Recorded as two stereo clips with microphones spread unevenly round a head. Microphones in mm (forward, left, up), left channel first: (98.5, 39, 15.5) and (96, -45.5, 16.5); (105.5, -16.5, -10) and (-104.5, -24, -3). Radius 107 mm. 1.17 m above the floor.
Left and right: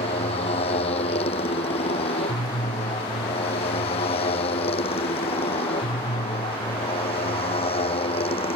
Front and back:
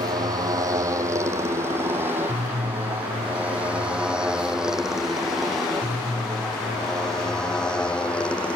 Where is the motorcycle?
110° left; by 8.6 s 90° left.